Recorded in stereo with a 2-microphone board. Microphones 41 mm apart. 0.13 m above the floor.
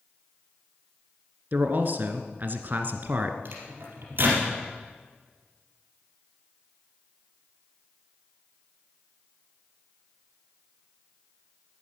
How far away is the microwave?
About 3.5 m.